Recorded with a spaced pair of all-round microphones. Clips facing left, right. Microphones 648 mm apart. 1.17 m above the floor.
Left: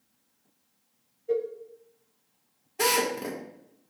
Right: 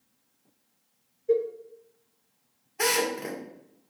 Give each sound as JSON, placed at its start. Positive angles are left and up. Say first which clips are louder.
{"t": 1.3, "sound": "a cowbell", "louder": "right 4 dB", "side_deg": 15, "distance_m": 0.8}
{"t": 2.8, "sound": "a drill", "louder": "even", "side_deg": 60, "distance_m": 1.7}